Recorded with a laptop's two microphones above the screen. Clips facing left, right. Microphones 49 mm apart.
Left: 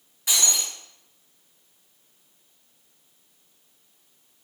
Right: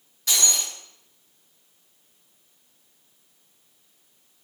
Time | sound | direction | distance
0.3 | breaking glass | 15° left (ahead or behind) | 4 m